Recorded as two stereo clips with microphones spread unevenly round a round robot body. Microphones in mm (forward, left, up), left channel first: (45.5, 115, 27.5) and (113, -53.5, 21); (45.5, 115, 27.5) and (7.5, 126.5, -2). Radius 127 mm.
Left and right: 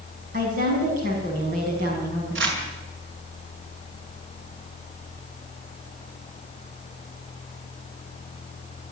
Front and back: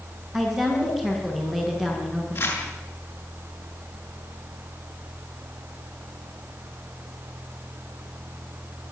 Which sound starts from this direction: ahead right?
Crumpling, at 2.4 s.